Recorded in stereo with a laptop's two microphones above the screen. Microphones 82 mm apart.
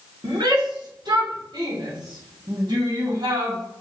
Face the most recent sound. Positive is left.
turn(degrees=-65)  # may be behind; listen again after turning